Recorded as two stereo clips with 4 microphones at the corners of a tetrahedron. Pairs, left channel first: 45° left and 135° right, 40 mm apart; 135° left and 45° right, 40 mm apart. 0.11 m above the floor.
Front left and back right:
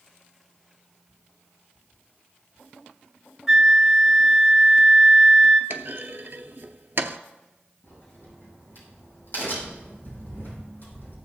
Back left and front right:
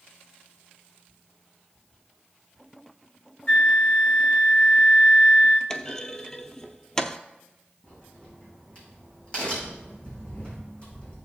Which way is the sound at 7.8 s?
80° left.